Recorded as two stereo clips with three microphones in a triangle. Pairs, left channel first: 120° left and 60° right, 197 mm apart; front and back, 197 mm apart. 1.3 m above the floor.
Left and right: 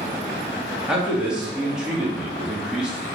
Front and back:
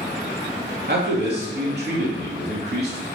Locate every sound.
0.9 s a man speaking: 145° right, 2.5 m